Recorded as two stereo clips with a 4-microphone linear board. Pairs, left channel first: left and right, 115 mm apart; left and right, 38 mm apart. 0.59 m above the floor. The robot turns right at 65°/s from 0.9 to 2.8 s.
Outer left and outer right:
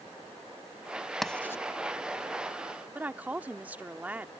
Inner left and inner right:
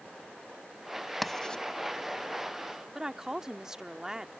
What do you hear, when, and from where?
1.2 s writing: centre (ahead or behind); by 1.6 s 25° left (ahead or behind)
3.0 s a woman speaking: 15° right (ahead or behind)